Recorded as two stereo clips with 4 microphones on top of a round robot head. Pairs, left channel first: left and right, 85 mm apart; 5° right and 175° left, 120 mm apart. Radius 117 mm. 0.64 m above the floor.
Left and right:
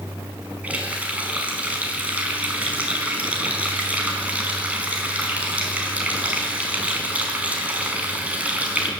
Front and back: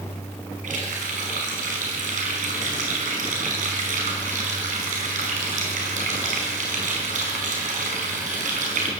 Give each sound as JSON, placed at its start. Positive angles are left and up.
{"t": 0.6, "sound": "a running tap", "azimuth_deg": -165, "distance_m": 5.0}